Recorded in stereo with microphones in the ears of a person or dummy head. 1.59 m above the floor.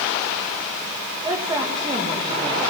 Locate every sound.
1.2 s a woman speaking: 25° right (ahead or behind), 1.9 m